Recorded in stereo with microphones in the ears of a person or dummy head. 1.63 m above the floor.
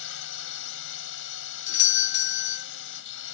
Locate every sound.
0.0 s a drone: 70° left (ahead or behind)
1.7 s a doorbell: 65° left (ahead or behind)